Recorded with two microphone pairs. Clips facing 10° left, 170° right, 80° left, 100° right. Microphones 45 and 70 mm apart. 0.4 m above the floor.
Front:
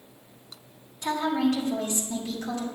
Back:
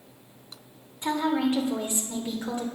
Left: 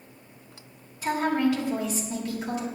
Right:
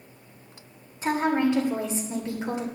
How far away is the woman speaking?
About 1.4 m.